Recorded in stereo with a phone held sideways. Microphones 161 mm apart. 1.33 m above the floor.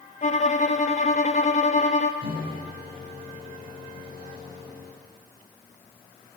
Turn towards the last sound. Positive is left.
turn(degrees=90)